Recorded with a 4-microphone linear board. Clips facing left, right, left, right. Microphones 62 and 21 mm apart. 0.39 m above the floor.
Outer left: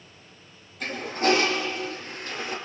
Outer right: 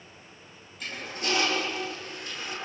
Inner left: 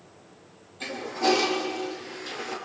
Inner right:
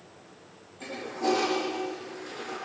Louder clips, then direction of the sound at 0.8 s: Outer left 9 dB, inner left 4 dB; 40° left (ahead or behind).